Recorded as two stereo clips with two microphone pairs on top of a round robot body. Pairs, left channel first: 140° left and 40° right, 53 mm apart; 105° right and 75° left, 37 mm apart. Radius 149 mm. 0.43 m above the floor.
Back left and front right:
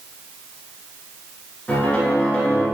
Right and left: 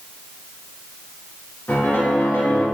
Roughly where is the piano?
Behind right.